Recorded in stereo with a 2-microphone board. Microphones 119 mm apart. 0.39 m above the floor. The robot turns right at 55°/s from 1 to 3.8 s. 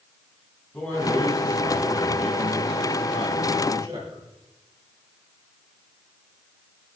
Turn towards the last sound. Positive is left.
turn(degrees=-45)